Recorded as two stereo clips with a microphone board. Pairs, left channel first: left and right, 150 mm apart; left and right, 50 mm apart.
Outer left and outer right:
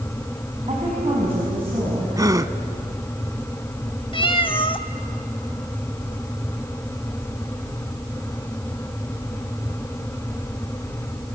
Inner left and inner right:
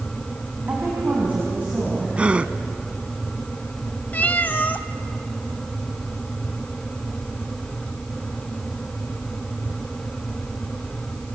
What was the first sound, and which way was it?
A woman speaking, 40° right (ahead or behind).